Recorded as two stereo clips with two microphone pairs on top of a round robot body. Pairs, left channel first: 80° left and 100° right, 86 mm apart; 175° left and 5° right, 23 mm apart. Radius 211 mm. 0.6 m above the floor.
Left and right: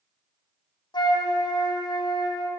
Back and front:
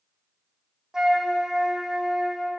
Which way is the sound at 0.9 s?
60° left.